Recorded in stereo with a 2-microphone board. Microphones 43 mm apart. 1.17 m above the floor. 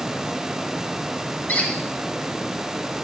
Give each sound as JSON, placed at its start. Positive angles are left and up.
{"t": 1.5, "sound": "a squeak", "side_deg": 50, "distance_m": 4.0}